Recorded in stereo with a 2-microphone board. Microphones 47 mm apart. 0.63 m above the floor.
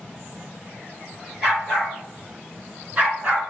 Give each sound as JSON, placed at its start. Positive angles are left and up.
{"t": 1.4, "sound": "a dog barking", "side_deg": -5, "distance_m": 3.5}